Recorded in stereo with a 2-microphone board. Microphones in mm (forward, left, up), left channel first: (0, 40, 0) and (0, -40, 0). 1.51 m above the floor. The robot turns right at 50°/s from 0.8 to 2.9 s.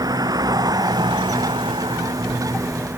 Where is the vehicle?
125° right; by 3.0 s 20° right.